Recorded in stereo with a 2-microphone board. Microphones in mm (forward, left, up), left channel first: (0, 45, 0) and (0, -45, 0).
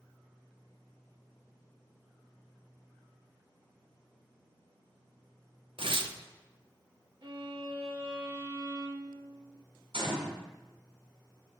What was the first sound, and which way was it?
Tearing paper, 75° right (ahead or behind).